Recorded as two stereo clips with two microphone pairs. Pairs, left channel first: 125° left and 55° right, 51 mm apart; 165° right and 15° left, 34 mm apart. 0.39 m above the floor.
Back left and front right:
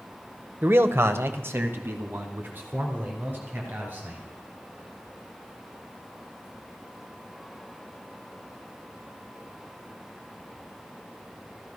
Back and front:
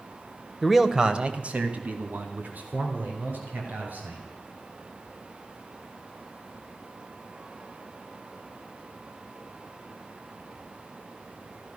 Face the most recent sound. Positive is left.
turn(degrees=0)